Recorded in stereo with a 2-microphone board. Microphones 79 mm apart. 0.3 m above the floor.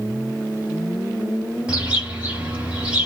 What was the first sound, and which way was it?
A bird, 15° right (ahead or behind).